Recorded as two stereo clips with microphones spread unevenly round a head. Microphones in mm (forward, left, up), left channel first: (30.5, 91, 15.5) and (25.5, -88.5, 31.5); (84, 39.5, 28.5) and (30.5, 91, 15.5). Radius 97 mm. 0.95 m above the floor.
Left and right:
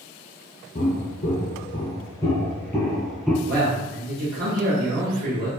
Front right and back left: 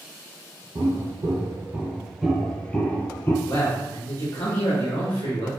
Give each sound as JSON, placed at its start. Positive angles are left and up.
{"t": 0.8, "sound": "footsteps", "azimuth_deg": 125, "distance_m": 1.2}
{"t": 3.5, "sound": "a man speaking", "azimuth_deg": -55, "distance_m": 1.1}